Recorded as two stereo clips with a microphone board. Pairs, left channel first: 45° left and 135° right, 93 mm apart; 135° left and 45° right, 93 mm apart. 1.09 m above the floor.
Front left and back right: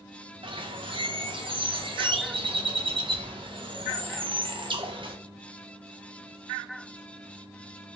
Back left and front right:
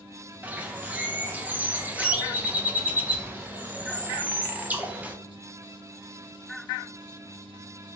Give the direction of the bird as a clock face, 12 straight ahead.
4 o'clock.